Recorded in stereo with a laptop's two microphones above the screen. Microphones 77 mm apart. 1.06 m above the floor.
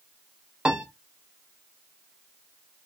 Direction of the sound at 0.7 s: 10° right (ahead or behind).